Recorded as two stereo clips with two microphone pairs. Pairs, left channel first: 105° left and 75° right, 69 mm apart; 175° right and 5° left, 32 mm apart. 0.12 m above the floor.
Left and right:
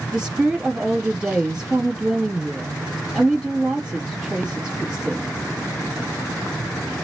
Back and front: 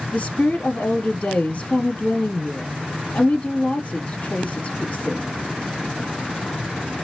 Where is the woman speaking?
155° right, 2.5 m.